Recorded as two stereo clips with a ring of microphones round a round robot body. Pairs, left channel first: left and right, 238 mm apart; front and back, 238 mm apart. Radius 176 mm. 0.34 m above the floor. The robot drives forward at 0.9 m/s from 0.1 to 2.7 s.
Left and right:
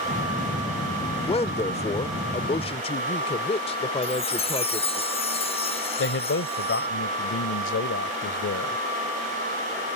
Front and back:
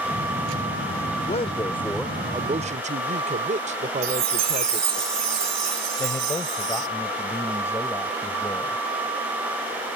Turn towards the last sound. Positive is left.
turn(degrees=80)